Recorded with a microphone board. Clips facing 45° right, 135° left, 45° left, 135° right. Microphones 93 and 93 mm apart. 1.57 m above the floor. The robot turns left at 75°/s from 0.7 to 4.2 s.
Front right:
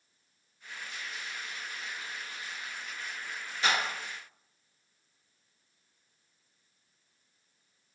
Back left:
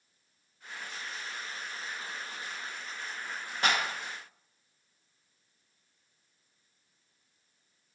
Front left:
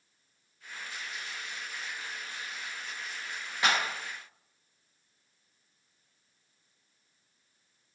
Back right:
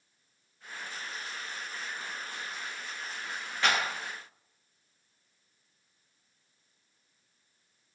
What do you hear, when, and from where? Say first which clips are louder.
3.6 s a clap: back left 1 dB, even; 115° left, 1.3 m; by 3.8 s 105° left, 1.3 m